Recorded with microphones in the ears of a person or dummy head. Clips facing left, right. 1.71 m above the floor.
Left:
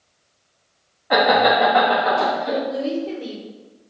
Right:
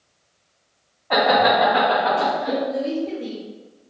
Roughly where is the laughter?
Centre.